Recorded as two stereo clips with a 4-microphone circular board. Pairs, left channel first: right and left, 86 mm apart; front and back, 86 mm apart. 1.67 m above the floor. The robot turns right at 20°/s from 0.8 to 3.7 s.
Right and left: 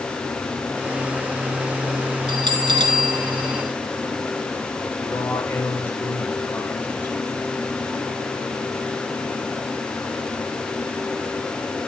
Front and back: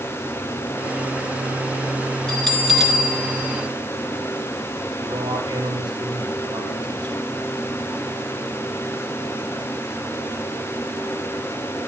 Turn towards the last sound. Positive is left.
turn(degrees=-155)